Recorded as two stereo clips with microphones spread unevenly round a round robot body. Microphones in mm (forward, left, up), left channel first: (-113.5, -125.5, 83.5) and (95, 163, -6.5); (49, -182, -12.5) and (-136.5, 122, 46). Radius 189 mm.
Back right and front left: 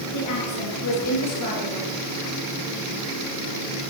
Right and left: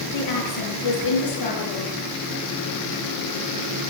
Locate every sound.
0.1 s a woman speaking: 85° right, 7 m